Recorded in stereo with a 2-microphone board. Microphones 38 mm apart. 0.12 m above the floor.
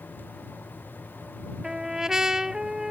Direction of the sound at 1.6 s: 15° right (ahead or behind).